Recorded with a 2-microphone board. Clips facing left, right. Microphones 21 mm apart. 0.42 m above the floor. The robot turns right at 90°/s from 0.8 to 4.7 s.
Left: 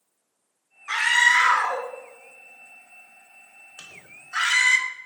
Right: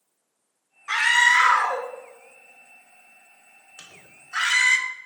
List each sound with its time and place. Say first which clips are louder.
0.9 s a scream: right 1 dB; 15° right (ahead or behind), 0.8 m; by 4.8 s 5° right (ahead or behind), 0.8 m
3.8 s a microwave: left 2 dB; 20° left (ahead or behind), 1.2 m; by 4.0 s 35° left (ahead or behind), 1.2 m